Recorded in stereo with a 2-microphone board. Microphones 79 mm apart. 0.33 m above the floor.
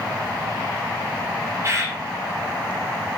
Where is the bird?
35° right (ahead or behind), 0.8 m.